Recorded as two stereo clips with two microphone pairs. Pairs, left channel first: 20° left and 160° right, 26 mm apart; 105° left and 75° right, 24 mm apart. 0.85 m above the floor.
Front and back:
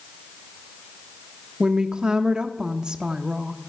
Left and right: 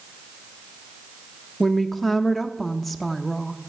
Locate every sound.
1.6 s a woman speaking: 175° left, 0.6 m